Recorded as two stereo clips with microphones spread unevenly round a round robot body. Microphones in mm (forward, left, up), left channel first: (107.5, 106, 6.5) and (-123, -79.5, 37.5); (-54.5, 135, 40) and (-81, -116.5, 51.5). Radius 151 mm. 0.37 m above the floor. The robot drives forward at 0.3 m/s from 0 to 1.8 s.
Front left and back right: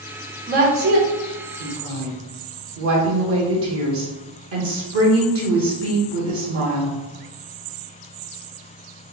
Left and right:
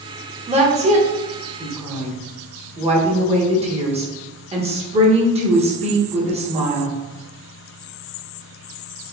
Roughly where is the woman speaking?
Behind right.